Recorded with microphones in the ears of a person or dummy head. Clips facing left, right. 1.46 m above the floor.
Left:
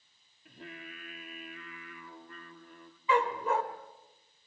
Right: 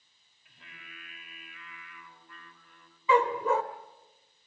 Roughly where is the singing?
Left.